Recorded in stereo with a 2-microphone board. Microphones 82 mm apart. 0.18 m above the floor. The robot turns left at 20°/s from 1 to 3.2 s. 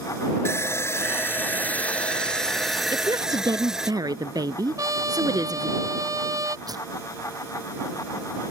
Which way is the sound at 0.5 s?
35° left.